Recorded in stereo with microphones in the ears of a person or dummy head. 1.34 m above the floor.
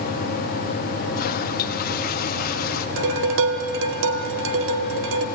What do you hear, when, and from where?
1.1 s a toilet flushing: 50° left (ahead or behind), 1.1 m
3.0 s dishes clattering: 80° right, 2.5 m